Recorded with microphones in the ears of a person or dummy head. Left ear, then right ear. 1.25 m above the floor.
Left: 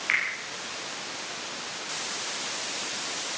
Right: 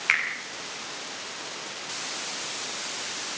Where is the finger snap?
20° right (ahead or behind), 7.5 m.